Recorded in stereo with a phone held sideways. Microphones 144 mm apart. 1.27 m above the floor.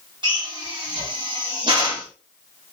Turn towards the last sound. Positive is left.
turn(degrees=-35)  # may be behind; listen again after turning